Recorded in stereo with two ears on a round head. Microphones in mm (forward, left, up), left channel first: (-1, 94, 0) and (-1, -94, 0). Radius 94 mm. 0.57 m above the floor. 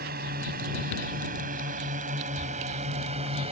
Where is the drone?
45° right (ahead or behind); by 3.5 s 30° right (ahead or behind).